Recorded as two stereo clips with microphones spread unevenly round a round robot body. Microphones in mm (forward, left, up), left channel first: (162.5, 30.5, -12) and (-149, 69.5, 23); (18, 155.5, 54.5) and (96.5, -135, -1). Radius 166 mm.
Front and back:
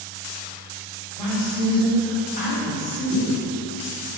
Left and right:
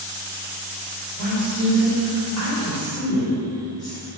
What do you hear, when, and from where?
1.2 s a woman speaking: 75° right, 1.7 m; by 4.1 s 10° left, 1.9 m